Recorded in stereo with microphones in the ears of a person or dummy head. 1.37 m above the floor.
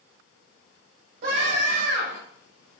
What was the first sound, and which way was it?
A scream, 65° right (ahead or behind).